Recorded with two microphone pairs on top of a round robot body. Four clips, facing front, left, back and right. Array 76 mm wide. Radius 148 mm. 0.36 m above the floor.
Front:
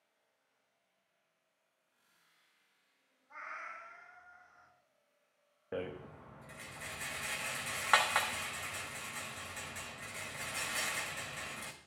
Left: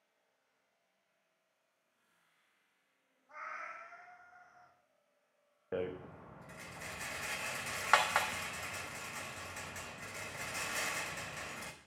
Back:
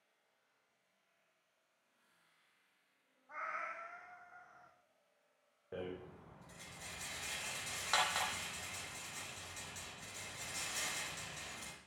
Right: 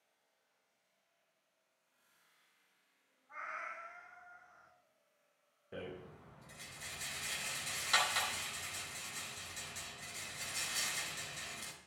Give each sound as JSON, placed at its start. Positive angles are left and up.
{"t": 3.3, "sound": "a cat meowing", "azimuth_deg": 170, "distance_m": 2.0}
{"t": 5.7, "sound": "a rattle", "azimuth_deg": 60, "distance_m": 1.1}